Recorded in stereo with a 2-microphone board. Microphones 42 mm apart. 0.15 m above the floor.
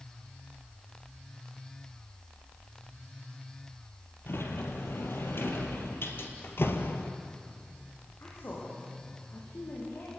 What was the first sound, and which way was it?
A sliding door, 70° left (ahead or behind).